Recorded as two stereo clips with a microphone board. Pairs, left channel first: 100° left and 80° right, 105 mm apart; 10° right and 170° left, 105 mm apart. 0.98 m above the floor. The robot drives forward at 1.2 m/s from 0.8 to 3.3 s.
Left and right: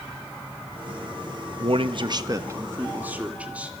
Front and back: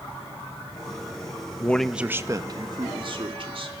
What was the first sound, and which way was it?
A man speaking, 80° right.